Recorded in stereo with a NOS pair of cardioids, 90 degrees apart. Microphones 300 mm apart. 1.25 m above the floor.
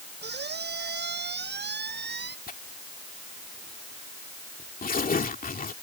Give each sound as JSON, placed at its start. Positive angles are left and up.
{"t": 0.2, "sound": "a squeak", "azimuth_deg": -35}
{"t": 2.5, "sound": "tearing paper", "azimuth_deg": 30}